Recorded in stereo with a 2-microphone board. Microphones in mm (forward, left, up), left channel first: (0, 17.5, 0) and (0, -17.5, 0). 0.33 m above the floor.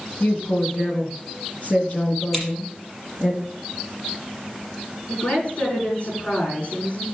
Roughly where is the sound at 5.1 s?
Left.